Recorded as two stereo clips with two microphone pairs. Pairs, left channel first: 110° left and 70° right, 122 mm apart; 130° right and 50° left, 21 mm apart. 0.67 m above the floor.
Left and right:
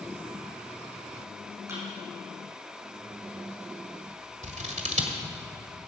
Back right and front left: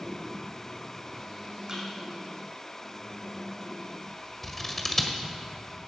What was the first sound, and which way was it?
A thud, 5° right.